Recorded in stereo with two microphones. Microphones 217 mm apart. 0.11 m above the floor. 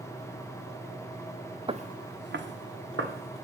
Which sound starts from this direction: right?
Footsteps, at 1.7 s.